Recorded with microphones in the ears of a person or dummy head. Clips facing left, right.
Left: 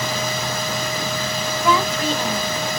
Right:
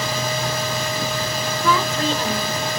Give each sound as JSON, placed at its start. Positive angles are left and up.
{"t": 0.0, "sound": "a fan", "side_deg": -35, "distance_m": 2.5}
{"t": 1.6, "sound": "a woman speaking", "side_deg": -45, "distance_m": 4.0}